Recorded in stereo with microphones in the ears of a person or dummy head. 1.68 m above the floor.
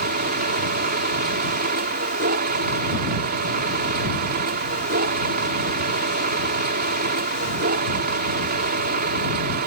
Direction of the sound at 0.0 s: 50° right (ahead or behind).